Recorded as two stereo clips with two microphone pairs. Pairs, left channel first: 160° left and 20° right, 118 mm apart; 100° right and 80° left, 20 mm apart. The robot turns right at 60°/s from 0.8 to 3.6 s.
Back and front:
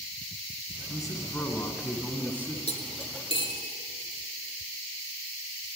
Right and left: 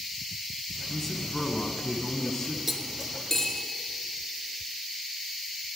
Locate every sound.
0.9 s a man speaking: 175° right, 1.4 m; by 2.6 s 75° right, 1.4 m
2.7 s cutlery clinking: 155° left, 1.6 m; by 3.7 s 150° right, 1.6 m